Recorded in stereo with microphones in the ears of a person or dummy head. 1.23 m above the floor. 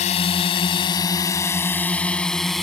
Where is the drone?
35° left (ahead or behind); by 2.6 s centre (ahead or behind).